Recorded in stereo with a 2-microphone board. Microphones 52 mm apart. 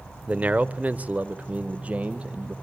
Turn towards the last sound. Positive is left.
turn(degrees=-25)  # may be behind; listen again after turning